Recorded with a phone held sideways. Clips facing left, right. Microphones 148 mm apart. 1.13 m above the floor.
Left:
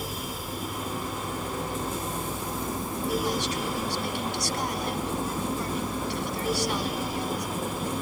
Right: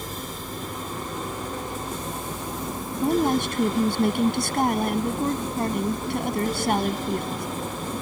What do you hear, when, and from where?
0.0 s a fan: 10° left (ahead or behind)
3.0 s a woman speaking: 50° right (ahead or behind)